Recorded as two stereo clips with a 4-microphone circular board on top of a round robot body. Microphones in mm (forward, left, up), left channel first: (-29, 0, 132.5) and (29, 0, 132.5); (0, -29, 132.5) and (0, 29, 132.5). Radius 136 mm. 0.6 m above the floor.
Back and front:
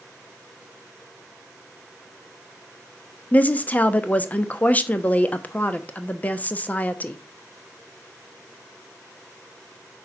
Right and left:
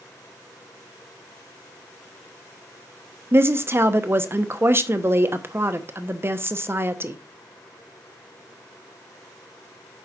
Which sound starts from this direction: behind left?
A woman speaking, at 3.3 s.